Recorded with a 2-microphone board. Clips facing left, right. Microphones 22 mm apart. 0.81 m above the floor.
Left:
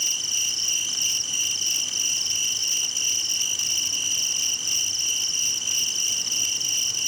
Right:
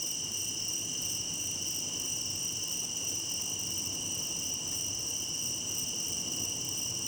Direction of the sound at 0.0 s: 70° left (ahead or behind).